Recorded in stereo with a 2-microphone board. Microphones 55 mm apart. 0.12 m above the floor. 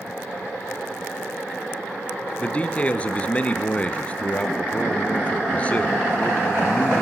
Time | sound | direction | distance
2.4 | a man speaking | 25° left (ahead or behind) | 1.6 m